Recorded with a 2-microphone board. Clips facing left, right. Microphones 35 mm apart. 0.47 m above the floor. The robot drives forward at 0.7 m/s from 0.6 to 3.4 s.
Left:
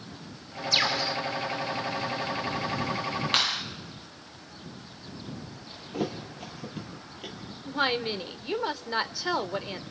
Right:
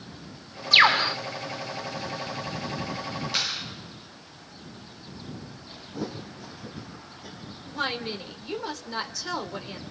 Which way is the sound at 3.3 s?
55° left (ahead or behind).